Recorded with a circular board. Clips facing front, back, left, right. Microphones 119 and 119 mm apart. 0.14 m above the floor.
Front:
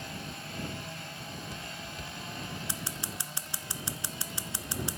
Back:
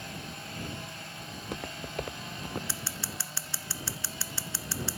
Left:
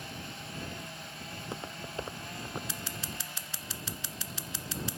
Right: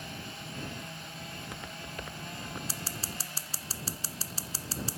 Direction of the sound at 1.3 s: 150° left.